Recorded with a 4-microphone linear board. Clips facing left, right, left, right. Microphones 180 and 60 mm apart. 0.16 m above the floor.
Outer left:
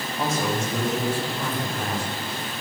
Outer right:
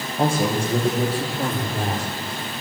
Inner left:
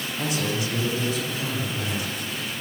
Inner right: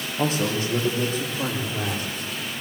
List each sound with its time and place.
0.2 s a man speaking: 35° right (ahead or behind), 9 m; by 2.1 s 45° right (ahead or behind), 9.5 m